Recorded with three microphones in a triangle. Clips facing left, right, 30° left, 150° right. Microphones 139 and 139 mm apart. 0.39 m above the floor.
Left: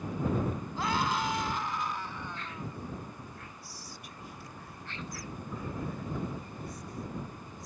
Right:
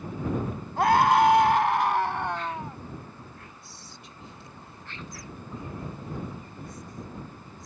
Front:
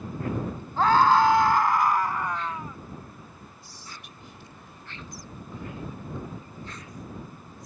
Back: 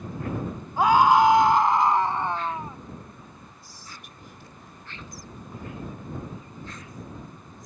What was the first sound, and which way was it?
A scream, 75° right.